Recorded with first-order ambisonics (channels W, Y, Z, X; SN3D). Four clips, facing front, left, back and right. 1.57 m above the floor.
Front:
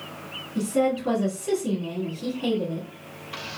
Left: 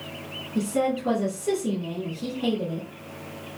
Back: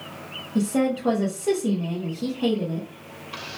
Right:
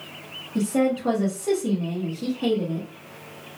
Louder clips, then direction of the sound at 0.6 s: Right 2 dB, back 1 dB; 155° right.